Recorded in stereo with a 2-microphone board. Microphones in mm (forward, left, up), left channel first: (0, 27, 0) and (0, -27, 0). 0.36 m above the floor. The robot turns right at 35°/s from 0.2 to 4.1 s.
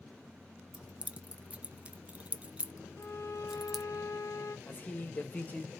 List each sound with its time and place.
0.7 s keys jangling: 25° right (ahead or behind), 0.5 m; by 3.9 s 5° right (ahead or behind), 0.5 m
3.0 s a violin: 55° left, 0.8 m; by 4.6 s 95° left, 0.8 m
4.7 s a man speaking: 30° left (ahead or behind), 1.3 m